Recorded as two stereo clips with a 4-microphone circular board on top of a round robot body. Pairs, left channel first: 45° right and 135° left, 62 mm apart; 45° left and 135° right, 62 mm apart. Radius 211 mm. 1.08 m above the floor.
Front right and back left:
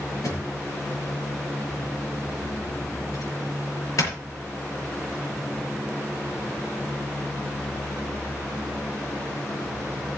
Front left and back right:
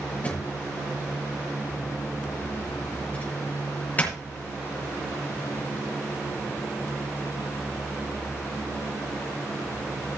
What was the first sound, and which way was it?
A drawer, 20° right.